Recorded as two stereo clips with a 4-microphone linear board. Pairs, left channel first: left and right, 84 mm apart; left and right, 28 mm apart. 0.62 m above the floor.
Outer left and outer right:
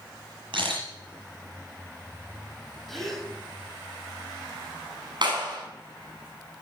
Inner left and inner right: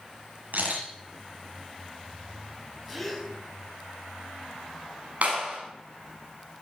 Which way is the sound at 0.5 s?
90° right.